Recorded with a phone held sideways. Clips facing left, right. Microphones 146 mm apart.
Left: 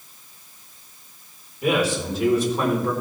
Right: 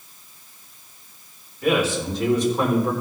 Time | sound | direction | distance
1.6 | a man speaking | 15° left (ahead or behind) | 3.5 m